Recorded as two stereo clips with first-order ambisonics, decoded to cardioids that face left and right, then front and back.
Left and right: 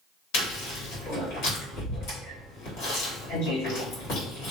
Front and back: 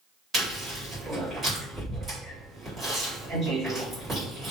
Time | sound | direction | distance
0.3 | chewing | 110° left | 1.5 m